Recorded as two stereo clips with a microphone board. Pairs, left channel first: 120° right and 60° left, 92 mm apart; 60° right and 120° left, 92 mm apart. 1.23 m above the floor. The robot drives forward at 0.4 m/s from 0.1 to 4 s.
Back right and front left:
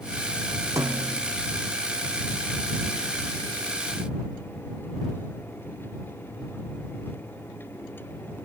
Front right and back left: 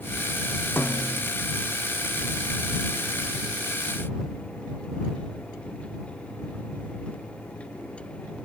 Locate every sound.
0.8 s a snare drum: 5° left